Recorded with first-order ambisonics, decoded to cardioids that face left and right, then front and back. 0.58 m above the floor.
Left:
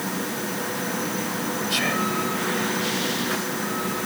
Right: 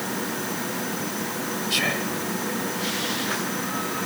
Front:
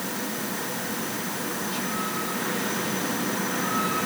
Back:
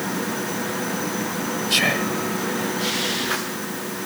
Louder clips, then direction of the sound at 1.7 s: Even, back 14 dB; 175° right.